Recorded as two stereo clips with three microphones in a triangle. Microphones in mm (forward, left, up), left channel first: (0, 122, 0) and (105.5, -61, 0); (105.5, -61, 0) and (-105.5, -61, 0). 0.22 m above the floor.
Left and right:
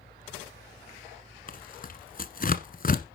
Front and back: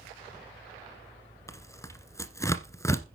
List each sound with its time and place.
1.5 s tearing paper: 75° left, 1.2 m